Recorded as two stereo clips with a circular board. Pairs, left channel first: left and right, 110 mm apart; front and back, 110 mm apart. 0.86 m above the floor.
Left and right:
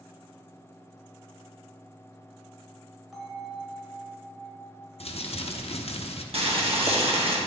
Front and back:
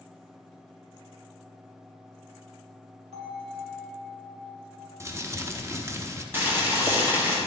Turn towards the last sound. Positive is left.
turn(degrees=-110)